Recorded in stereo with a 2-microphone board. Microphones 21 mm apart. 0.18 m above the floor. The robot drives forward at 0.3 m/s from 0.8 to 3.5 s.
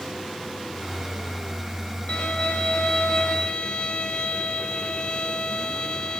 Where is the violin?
70° left (ahead or behind), 1.0 m; by 6.2 s 60° left (ahead or behind), 1.1 m.